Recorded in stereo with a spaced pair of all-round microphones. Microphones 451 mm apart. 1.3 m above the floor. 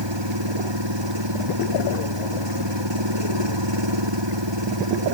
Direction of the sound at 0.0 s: 65° right (ahead or behind).